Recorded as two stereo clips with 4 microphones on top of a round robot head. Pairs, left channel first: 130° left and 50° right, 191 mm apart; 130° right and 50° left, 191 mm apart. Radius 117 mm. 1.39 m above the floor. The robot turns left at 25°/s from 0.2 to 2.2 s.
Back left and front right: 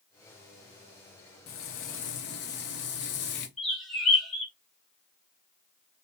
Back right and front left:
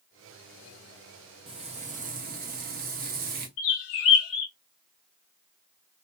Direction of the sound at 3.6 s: 140° right.